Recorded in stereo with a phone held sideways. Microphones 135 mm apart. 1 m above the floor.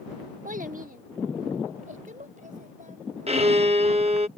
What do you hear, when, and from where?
0.5 s a child speaking: 80° right; by 4.2 s 75° right (ahead or behind)
3.3 s a violin: 50° right (ahead or behind)